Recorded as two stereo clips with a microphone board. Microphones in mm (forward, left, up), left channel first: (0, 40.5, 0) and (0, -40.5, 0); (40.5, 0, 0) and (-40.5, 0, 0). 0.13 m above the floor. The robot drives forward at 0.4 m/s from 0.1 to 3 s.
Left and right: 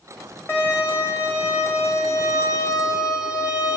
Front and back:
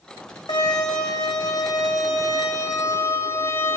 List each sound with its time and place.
0.5 s a violin: 25° left, 1.9 m; by 3.8 s 55° left, 1.1 m